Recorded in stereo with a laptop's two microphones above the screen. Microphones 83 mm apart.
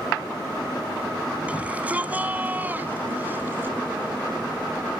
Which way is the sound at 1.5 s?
15° right (ahead or behind).